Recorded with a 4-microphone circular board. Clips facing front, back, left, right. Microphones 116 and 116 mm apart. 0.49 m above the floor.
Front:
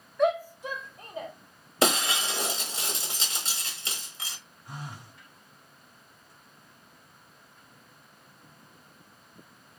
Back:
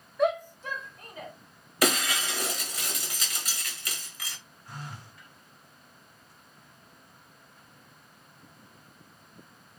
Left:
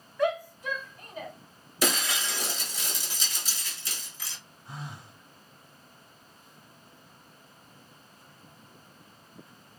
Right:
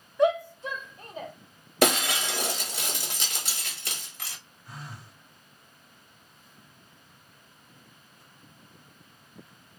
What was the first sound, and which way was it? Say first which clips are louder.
A shout: front 1 dB, right 4 dB; 95° right.